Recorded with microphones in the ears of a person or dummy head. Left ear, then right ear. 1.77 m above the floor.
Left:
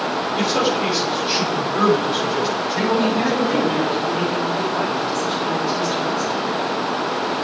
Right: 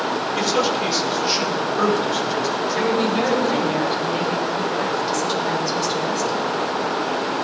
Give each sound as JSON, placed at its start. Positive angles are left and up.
{"t": 0.4, "sound": "a man speaking", "side_deg": -35, "distance_m": 5.5}
{"t": 2.8, "sound": "a woman speaking", "side_deg": -55, "distance_m": 9.0}